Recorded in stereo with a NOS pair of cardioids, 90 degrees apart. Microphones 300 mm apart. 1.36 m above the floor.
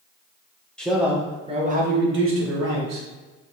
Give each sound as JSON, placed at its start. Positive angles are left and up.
{"t": 0.8, "sound": "a man speaking", "azimuth_deg": 5, "distance_m": 1.2}